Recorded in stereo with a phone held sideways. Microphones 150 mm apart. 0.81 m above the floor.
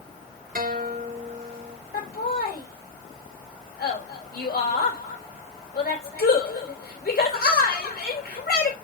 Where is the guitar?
65° right (ahead or behind), 0.9 m.